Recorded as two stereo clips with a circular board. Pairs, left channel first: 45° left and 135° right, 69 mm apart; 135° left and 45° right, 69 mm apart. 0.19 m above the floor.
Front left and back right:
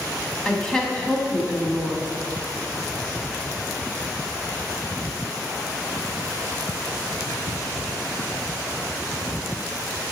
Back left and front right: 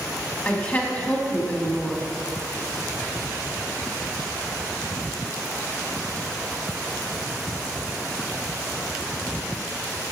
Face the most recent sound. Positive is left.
turn(degrees=110)